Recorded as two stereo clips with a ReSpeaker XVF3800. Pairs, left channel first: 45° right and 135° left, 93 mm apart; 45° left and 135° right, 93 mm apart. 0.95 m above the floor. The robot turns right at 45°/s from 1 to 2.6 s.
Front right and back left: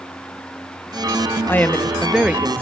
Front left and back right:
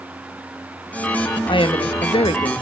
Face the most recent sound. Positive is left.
turn(degrees=70)